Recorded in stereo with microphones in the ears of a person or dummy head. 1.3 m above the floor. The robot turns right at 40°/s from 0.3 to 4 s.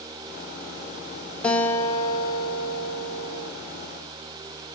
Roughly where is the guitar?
Ahead.